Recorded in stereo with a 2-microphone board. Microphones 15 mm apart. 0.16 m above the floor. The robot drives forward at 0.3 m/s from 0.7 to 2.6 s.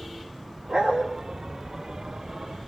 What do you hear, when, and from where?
0.7 s a dog barking: 70° right (ahead or behind), 6.5 m